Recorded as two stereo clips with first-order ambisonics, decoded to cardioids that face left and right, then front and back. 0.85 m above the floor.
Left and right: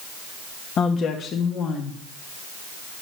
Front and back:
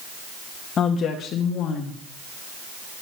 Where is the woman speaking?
50° left, 1.2 m; by 2.0 s 35° left, 1.9 m.